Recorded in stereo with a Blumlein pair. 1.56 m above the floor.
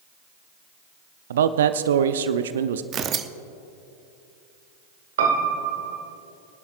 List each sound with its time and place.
1.3 s a man speaking: 60° right, 0.6 m
2.9 s tearing paper: 30° right, 0.6 m
5.2 s a piano: 60° right, 1.5 m